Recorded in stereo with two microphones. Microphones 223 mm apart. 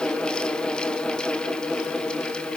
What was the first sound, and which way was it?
Only background noise.